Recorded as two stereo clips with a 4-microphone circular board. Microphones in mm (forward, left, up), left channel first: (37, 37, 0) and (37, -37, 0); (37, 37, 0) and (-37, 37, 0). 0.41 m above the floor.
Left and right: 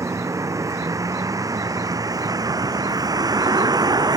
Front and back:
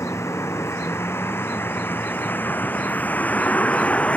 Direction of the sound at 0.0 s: 50° right.